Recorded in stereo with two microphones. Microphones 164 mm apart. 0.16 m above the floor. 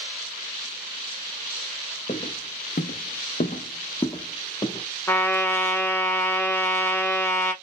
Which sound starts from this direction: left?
Footsteps, at 2.1 s.